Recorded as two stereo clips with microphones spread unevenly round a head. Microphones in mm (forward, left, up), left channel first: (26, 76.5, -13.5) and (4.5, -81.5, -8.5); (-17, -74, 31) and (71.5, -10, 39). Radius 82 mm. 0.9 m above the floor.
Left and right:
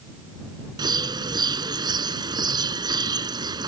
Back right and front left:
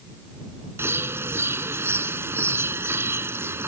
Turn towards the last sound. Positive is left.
turn(degrees=-30)